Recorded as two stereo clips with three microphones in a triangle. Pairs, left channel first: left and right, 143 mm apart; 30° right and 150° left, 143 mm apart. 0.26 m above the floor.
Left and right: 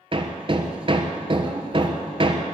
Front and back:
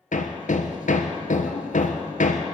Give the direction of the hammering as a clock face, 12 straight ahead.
1 o'clock.